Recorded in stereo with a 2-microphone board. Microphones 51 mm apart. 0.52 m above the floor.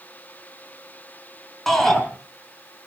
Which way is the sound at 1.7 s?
5° left (ahead or behind).